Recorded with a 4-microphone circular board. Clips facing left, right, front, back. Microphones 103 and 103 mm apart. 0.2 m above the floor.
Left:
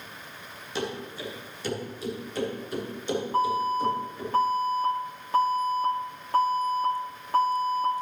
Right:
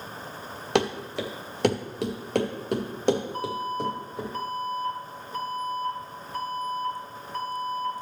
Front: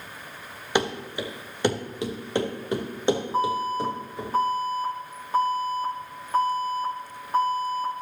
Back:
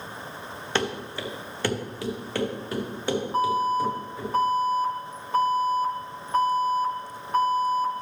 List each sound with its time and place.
0.8 s running footsteps: 75° right, 1.6 m; by 4.3 s 65° right, 4.5 m
3.3 s an alarm: 90° left, 4 m